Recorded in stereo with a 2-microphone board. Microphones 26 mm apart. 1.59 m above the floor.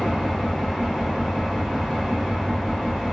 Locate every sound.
0.0 s an engine running: 25° right (ahead or behind), 1.8 m